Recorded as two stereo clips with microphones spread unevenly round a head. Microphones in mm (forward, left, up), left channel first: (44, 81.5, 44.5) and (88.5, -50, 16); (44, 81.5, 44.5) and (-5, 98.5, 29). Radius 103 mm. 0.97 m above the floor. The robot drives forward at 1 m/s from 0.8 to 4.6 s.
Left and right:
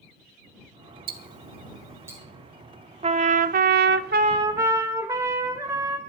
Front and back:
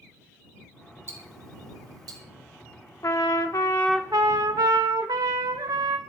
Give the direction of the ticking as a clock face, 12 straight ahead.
4 o'clock.